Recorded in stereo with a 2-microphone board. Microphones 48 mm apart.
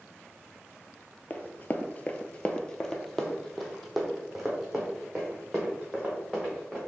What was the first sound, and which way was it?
Running footsteps, 35° left (ahead or behind).